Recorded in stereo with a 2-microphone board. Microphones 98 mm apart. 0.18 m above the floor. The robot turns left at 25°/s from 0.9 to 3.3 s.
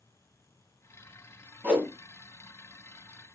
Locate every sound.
1.6 s a whoosh: 20° right (ahead or behind), 1.5 m